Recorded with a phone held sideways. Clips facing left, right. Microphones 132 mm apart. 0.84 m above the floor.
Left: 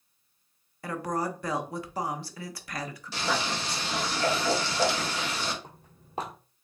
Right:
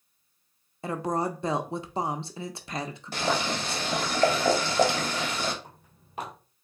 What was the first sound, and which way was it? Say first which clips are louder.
A woman speaking: right 2 dB; 25° right (ahead or behind).